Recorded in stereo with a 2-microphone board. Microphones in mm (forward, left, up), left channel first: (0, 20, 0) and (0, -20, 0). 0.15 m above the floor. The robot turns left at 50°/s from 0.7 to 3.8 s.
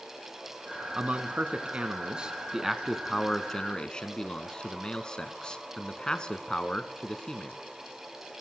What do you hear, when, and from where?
0.9 s a man speaking: 80° right, 1.5 m; by 7.6 s 140° left, 1.5 m